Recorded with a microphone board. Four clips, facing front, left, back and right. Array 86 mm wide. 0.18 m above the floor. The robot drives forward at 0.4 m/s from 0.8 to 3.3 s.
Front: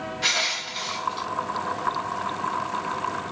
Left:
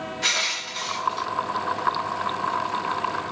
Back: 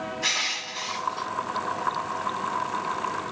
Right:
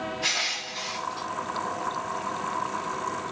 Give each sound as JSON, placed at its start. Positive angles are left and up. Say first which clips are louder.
{"t": 0.2, "sound": "crushing", "louder": "left 3 dB, front 3 dB", "azimuth_deg": 40, "distance_m": 1.3}